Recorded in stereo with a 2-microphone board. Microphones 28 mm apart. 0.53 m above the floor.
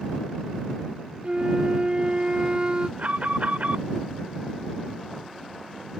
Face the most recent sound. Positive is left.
turn(degrees=-60)  # may be behind; listen again after turning